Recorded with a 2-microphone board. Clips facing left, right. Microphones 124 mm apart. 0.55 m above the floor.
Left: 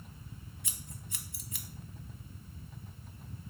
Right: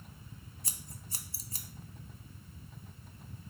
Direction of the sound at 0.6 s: 40° right (ahead or behind).